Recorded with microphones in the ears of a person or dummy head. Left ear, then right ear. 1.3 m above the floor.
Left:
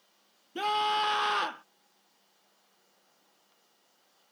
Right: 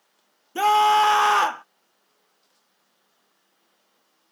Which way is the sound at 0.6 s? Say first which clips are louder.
Right 11 dB; 35° right (ahead or behind).